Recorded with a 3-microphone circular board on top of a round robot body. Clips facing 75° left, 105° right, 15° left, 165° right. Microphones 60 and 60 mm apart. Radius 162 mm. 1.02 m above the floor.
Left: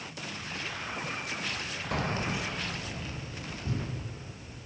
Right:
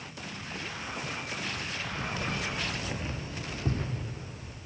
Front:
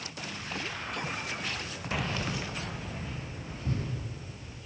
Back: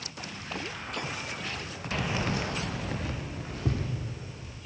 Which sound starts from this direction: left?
Keys jangling, at 1.9 s.